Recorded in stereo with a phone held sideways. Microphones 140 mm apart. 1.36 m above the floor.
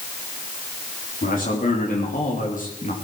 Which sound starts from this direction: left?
A man speaking, at 1.2 s.